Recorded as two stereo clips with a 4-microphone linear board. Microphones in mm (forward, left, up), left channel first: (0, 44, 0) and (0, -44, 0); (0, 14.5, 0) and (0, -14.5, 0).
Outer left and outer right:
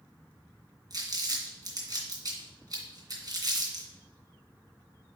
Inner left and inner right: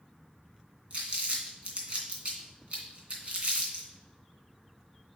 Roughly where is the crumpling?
Right.